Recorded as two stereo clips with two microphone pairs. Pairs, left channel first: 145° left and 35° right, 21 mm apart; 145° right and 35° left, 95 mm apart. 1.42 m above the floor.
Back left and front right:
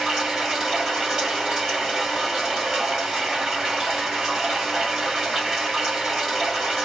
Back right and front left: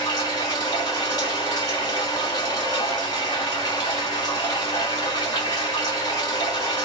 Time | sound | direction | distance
0.0 | running water | 100° right | 2.5 m